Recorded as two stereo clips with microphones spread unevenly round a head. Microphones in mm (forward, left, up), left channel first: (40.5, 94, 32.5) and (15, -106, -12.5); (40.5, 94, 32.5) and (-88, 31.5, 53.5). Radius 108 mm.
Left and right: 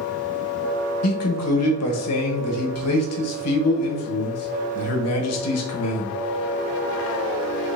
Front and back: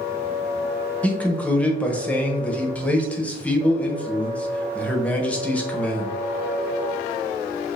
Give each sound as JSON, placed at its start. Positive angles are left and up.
{"t": 1.0, "sound": "a man speaking", "azimuth_deg": 105, "distance_m": 1.2}